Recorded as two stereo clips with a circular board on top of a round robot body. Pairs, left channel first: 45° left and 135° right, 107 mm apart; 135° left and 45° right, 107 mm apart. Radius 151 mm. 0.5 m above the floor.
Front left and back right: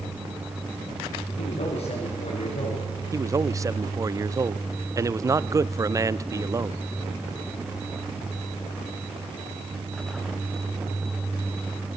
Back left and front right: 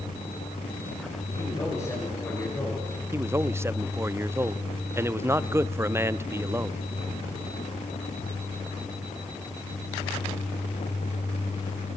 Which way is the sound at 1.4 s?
75° left.